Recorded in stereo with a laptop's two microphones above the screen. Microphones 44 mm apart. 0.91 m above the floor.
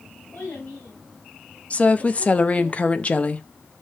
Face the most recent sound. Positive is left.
turn(degrees=30)  # may be behind; listen again after turning